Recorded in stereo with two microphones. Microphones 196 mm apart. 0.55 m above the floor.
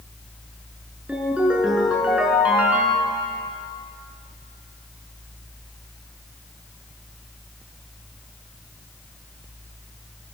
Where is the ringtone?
5° right (ahead or behind), 4.5 m.